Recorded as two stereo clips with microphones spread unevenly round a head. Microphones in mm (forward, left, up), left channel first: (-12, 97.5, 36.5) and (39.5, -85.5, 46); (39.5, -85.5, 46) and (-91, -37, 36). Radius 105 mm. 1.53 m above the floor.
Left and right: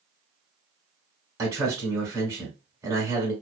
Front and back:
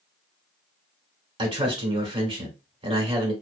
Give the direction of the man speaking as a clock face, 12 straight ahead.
5 o'clock.